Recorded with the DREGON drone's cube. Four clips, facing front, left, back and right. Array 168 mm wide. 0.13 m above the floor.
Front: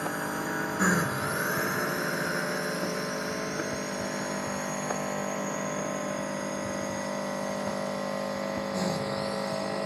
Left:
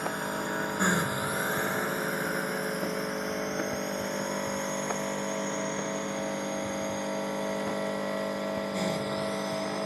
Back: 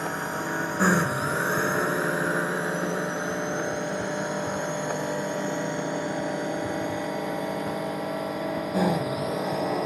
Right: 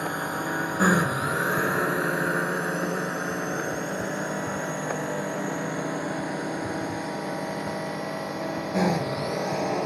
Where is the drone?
125° right; by 9.9 s 130° right.